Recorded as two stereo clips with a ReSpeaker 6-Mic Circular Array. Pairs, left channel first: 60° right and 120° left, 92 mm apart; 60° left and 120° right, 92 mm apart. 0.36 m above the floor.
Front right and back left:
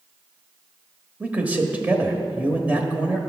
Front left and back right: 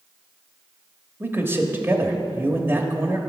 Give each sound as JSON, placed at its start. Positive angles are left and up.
{"t": 1.2, "sound": "a man speaking", "azimuth_deg": -175, "distance_m": 1.1}